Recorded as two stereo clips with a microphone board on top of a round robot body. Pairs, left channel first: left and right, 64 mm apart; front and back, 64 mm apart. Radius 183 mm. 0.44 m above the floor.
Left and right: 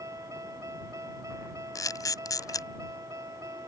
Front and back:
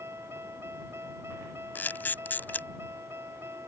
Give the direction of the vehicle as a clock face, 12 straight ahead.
4 o'clock.